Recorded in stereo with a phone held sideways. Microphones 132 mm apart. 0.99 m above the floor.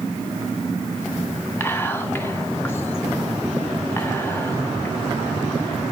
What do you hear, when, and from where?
1.6 s whispering: 15° left (ahead or behind), 1.4 m